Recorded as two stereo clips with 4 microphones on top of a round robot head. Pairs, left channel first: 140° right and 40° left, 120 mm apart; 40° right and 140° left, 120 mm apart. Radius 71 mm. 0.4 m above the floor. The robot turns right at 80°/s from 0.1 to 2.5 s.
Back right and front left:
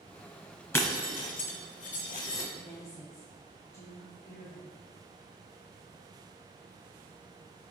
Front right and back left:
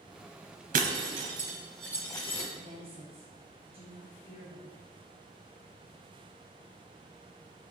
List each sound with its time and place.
0.7 s breaking glass: 145° left, 0.9 m; by 2.4 s 75° right, 0.9 m
2.5 s a woman speaking: 160° left, 1.6 m